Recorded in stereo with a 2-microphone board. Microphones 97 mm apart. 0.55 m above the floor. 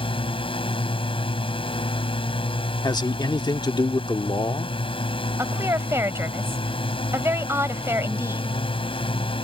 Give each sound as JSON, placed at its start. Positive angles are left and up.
{"t": 0.0, "sound": "a drone", "side_deg": 60}
{"t": 2.8, "sound": "a man speaking", "side_deg": 45}
{"t": 5.4, "sound": "a woman speaking", "side_deg": -25}